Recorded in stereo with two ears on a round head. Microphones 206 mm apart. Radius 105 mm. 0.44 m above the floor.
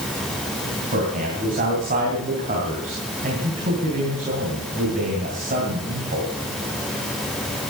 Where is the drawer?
No drawer in this recording.